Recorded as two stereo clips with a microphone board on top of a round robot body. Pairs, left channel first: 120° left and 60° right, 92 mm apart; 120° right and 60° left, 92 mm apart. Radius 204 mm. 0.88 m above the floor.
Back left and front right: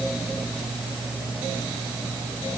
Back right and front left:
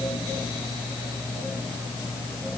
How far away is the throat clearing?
I don't hear throat clearing.